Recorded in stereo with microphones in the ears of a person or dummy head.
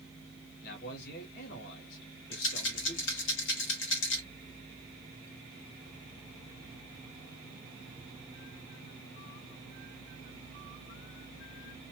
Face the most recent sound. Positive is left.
turn(degrees=55)  # may be behind; listen again after turning